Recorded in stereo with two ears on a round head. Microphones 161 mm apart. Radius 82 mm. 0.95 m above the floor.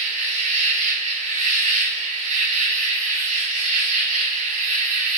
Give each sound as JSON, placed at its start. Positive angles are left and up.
{"t": 0.0, "sound": "an insect", "side_deg": -45, "distance_m": 1.0}